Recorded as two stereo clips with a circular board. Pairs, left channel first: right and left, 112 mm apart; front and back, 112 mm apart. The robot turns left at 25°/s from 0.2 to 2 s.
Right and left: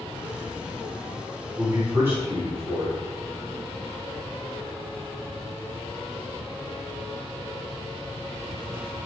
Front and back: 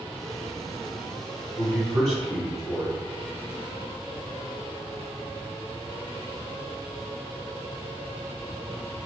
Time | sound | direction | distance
1.6 | a man speaking | 90° left | 1.6 m